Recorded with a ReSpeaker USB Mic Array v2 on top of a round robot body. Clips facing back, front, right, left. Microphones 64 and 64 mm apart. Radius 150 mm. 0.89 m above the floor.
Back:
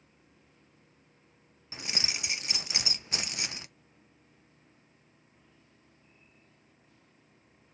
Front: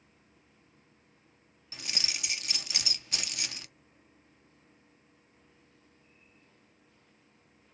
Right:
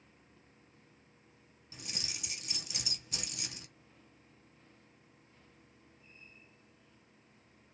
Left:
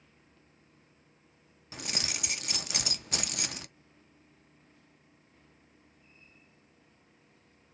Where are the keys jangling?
115° left, 0.5 m.